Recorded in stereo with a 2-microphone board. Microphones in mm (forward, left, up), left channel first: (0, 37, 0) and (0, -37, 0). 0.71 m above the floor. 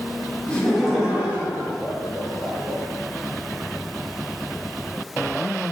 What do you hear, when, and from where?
0.5 s laughter: 20° left (ahead or behind), 0.7 m; by 2.8 s 55° right (ahead or behind), 1.4 m